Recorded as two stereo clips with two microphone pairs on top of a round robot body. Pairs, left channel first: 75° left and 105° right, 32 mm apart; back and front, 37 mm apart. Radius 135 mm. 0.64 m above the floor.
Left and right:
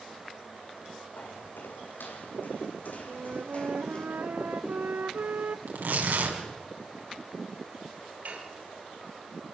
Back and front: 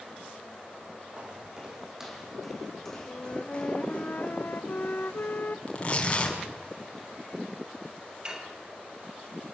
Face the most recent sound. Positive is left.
turn(degrees=-65)